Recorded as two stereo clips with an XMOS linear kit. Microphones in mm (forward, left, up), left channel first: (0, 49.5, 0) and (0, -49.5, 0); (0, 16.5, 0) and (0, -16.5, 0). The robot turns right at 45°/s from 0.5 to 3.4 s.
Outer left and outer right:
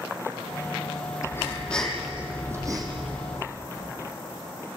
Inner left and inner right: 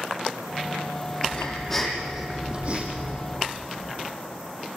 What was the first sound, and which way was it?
Breathing, 150° left.